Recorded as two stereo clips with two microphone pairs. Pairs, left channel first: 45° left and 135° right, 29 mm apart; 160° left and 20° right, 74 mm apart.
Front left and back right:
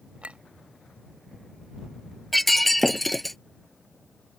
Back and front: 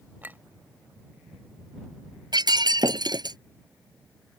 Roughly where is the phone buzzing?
No phone buzzing in this recording.